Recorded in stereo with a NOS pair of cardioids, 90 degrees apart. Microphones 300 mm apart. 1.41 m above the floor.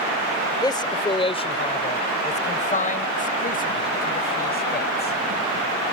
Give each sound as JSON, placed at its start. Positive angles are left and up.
{"t": 0.6, "sound": "a man speaking", "azimuth_deg": 15}